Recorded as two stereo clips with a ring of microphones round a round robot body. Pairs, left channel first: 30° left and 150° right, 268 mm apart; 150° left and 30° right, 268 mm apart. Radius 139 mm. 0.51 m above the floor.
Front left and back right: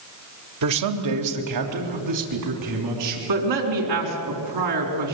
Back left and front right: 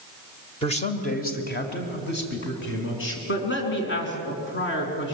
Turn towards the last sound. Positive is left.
turn(degrees=-160)